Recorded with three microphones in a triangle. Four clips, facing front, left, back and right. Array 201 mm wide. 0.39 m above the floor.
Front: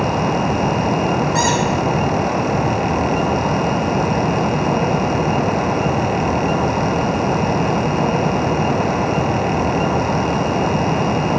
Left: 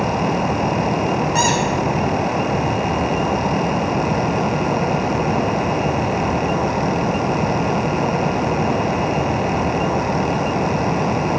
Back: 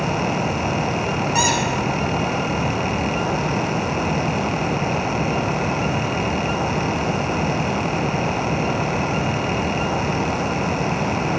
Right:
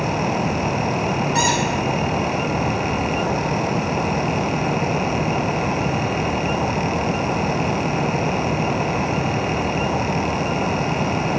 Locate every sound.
1.4 s a squeak: 95° left, 1.5 m